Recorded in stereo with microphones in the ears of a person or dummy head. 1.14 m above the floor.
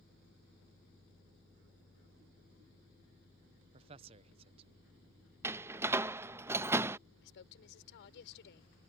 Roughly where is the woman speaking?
Left.